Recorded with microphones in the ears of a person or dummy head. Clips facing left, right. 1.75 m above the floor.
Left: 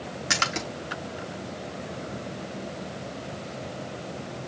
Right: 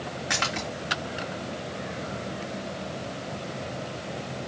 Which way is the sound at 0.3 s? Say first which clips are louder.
Left 1 dB; 45° left (ahead or behind).